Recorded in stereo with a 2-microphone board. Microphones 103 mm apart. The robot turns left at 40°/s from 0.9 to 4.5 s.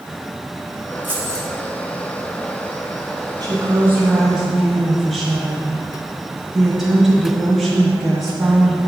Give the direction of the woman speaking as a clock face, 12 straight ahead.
4 o'clock.